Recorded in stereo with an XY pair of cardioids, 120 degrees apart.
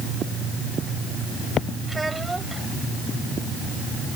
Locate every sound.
1.9 s a child speaking: 15° right